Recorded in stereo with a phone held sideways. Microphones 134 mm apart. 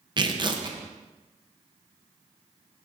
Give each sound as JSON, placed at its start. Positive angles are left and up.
{"t": 0.2, "sound": "tearing paper", "side_deg": -35, "distance_m": 0.6}